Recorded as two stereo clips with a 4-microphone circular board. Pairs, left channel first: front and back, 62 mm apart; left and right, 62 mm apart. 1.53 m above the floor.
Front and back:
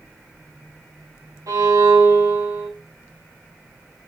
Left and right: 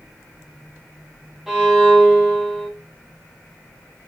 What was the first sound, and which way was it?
A violin, 170° right.